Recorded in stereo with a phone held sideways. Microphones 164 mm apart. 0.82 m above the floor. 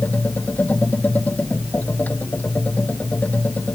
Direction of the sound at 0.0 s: 10° left (ahead or behind).